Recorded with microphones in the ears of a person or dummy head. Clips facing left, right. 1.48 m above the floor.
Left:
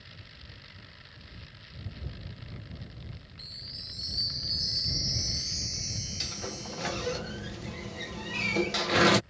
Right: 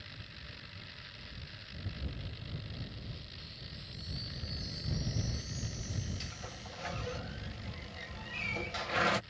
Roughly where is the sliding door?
Left.